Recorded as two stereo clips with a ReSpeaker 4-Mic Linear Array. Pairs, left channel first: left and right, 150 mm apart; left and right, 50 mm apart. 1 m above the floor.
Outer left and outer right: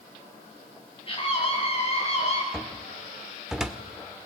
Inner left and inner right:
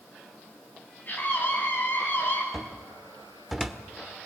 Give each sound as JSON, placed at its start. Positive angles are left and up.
{"t": 1.1, "sound": "a scream", "side_deg": 40, "distance_m": 9.5}
{"t": 2.5, "sound": "a cupboard door", "side_deg": -5, "distance_m": 1.3}